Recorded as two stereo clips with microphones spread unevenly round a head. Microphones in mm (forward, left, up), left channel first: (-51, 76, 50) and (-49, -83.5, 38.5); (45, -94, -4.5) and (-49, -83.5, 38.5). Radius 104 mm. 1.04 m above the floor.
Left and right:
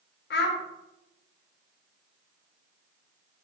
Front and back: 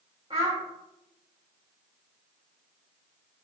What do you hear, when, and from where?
0.3 s a child speaking: 105° left, 0.8 m